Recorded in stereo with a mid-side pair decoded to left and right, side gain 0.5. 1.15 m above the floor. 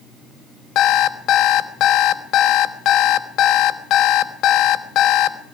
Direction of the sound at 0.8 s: 70° left.